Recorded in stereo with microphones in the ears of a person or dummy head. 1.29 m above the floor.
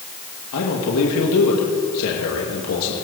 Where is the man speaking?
75° left (ahead or behind), 2 m.